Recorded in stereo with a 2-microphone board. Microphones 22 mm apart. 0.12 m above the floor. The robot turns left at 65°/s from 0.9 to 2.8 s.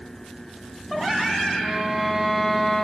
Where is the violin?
120° right, 1.8 m; by 2.9 s 160° left, 1.8 m.